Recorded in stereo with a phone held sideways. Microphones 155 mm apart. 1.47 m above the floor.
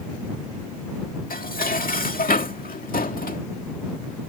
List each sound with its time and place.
1.3 s dishes clattering: 75° left (ahead or behind)